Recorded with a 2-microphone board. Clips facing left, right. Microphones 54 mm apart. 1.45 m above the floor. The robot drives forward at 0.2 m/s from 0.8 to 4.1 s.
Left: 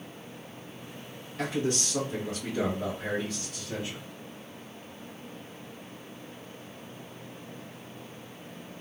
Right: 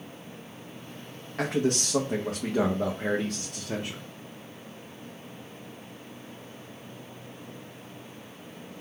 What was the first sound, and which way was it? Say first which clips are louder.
A man speaking: right 3 dB; 75° right (ahead or behind).